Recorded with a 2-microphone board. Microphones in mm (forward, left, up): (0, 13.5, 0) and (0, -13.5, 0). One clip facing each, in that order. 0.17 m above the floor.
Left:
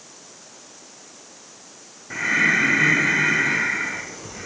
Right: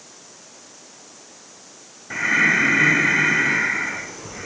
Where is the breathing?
15° right (ahead or behind), 4 m.